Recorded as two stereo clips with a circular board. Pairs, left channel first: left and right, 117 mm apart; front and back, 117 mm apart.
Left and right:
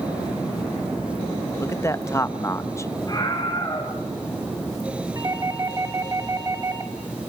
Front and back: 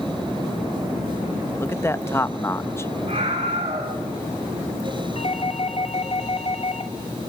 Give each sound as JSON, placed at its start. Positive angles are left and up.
{"t": 1.6, "sound": "a man speaking", "azimuth_deg": 50, "distance_m": 0.7}
{"t": 3.1, "sound": "a scream", "azimuth_deg": 150, "distance_m": 4.5}
{"t": 5.2, "sound": "a doorbell", "azimuth_deg": -30, "distance_m": 2.5}